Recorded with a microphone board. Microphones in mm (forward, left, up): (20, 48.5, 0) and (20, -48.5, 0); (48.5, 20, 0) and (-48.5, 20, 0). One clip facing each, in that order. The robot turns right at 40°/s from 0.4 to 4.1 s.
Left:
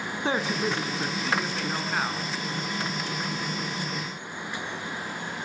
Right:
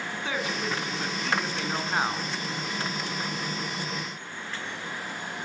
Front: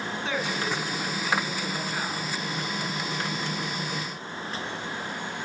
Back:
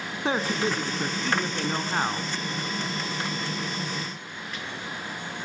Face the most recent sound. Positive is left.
turn(degrees=-75)